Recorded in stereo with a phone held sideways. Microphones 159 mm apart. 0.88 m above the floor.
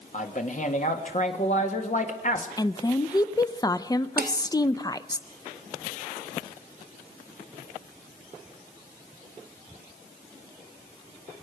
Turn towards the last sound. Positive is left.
turn(degrees=-70)  # may be behind; listen again after turning